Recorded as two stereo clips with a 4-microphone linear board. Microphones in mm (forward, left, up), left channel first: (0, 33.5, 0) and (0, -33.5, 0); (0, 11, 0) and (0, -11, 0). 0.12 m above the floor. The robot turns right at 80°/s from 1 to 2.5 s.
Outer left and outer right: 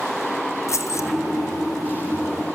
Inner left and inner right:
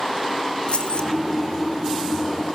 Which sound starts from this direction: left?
Keys jangling, at 0.7 s.